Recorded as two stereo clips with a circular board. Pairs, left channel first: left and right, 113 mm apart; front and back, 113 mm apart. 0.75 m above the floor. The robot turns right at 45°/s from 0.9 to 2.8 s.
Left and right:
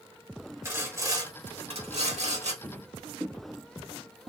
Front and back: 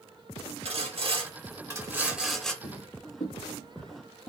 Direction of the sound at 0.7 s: 155° right.